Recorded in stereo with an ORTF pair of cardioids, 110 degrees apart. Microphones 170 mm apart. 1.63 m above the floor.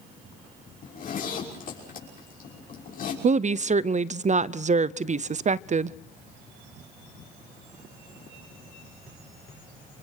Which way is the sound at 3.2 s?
45° right.